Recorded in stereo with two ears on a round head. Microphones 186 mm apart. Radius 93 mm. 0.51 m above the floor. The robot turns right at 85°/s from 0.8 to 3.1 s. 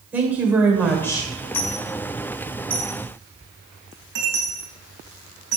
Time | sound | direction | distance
0.1 | a woman speaking | 10° right | 1.7 m
1.5 | a dropped coin | 75° left (ahead or behind) | 2.5 m